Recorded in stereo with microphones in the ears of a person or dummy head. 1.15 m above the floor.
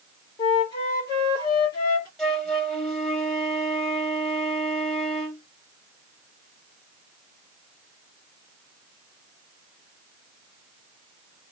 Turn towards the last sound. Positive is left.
turn(degrees=0)  # may be behind; listen again after turning